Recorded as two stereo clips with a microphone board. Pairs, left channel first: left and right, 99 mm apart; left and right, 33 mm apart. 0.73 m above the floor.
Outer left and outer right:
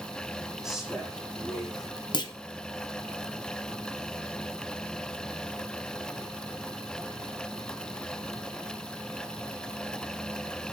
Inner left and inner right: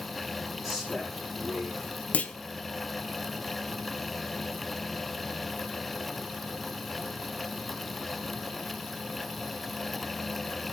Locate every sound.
0.6 s a man speaking: 5° right (ahead or behind), 9 m
2.1 s a clunk: 45° left (ahead or behind), 1.0 m